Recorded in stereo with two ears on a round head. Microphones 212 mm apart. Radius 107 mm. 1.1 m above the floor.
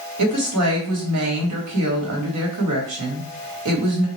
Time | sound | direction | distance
0.2 | a woman speaking | 70° right (ahead or behind) | 1.8 m